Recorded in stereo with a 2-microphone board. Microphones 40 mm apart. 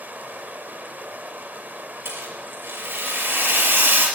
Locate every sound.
0.0 s running water: 50° right (ahead or behind), 0.8 m
2.0 s a rattle: 70° right (ahead or behind), 4.5 m